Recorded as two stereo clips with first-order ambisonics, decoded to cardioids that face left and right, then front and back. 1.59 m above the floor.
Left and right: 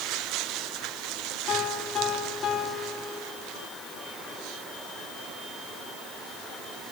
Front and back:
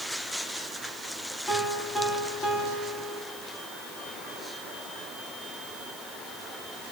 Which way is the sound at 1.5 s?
55° left.